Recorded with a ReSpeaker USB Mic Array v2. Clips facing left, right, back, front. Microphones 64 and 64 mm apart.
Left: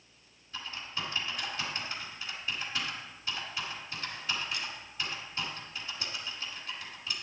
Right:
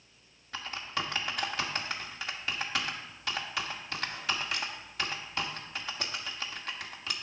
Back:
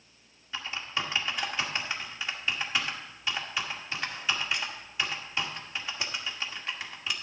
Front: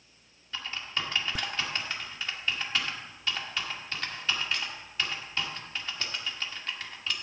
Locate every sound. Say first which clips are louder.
0.5 s typing on a keyboard: right 4 dB, back 1 dB; 105° right, 1.2 m